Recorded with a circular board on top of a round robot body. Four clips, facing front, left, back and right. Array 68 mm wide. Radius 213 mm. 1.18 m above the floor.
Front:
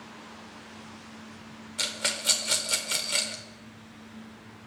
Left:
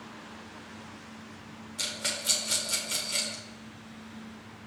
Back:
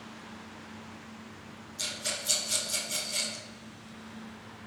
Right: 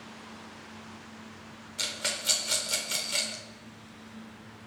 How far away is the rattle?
About 0.8 m.